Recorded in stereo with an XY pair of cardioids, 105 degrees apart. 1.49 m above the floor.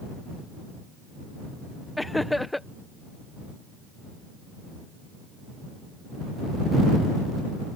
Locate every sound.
2.0 s laughter: 10° left